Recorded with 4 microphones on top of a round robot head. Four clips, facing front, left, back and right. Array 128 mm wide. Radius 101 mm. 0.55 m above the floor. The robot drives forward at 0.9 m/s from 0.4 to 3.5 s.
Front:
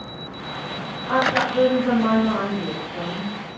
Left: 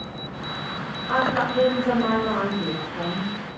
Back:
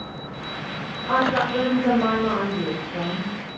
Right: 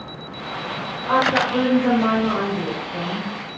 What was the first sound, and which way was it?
A woman speaking, 115° right.